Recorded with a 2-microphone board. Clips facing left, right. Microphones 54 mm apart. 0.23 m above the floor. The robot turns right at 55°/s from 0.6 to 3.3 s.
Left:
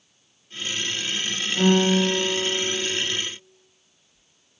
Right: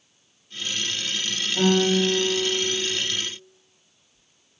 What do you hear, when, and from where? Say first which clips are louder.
1.6 s a guitar: left 1 dB; 155° right, 1.0 m; by 3.0 s 75° right, 1.0 m